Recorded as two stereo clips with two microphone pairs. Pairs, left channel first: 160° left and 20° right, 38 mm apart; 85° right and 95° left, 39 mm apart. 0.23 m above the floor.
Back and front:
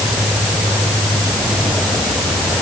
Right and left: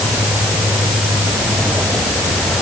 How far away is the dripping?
I don't hear dripping.